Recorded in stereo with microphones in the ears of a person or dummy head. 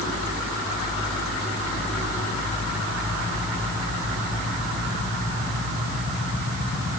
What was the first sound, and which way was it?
Only background noise.